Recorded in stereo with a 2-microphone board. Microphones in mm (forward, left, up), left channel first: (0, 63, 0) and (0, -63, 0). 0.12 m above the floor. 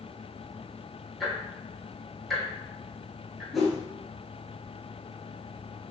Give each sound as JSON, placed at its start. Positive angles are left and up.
{"t": 1.2, "sound": "ticking", "side_deg": 0, "distance_m": 1.3}
{"t": 3.5, "sound": "a whoosh", "side_deg": 0, "distance_m": 1.4}